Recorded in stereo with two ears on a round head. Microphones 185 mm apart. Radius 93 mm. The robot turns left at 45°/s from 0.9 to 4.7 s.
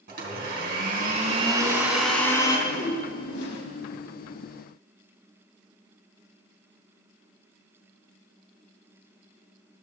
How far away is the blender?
About 3 m.